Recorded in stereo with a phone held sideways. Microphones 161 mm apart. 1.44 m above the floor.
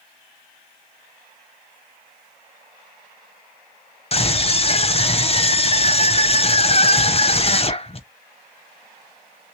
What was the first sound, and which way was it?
A scream, 40° left (ahead or behind).